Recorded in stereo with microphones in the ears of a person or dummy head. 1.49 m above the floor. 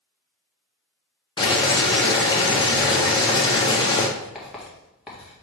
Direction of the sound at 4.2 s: Centre (ahead or behind).